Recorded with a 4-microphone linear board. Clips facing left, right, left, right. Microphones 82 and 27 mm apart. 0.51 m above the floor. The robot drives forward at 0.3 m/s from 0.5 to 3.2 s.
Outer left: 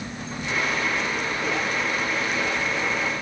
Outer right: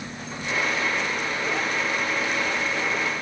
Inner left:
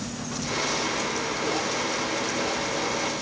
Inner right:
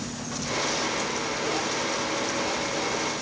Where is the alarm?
I don't hear an alarm.